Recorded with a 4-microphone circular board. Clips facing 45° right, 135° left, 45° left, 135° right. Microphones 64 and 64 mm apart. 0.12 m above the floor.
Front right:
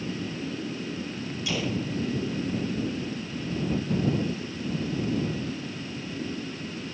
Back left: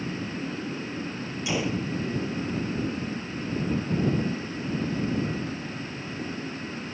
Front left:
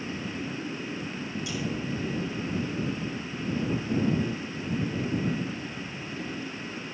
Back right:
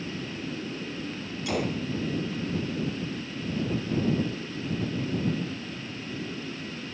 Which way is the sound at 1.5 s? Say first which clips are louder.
Back left 2 dB, back right 6 dB; 155° right.